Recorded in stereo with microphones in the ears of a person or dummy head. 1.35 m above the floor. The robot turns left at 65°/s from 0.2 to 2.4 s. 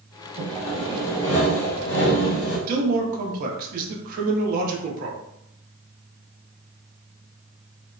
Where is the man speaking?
50° right (ahead or behind), 0.6 m.